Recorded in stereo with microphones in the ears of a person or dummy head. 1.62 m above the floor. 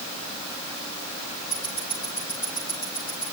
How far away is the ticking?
About 8.5 m.